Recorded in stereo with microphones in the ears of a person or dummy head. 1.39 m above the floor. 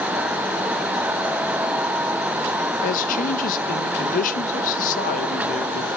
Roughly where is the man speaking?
Left.